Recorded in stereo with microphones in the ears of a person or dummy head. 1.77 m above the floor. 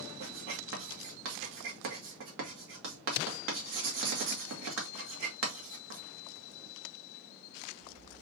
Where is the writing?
60° right (ahead or behind), 1.6 m.